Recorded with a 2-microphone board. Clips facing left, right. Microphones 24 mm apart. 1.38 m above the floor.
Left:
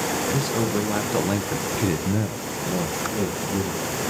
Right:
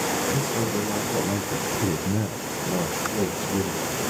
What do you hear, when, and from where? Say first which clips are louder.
0.3 s a man speaking: left 2 dB; 60° left (ahead or behind), 2 m; by 4.0 s 25° right (ahead or behind), 3 m